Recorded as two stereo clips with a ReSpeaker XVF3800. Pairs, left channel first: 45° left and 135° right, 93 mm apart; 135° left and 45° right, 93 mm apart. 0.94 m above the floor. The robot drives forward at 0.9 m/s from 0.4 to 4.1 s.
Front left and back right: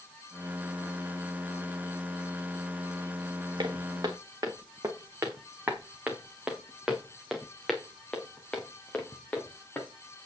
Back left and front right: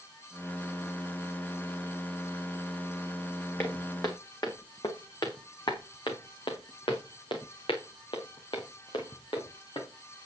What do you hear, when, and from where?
3.6 s footsteps: 170° right, 2.5 m; by 10.2 s 115° left, 4 m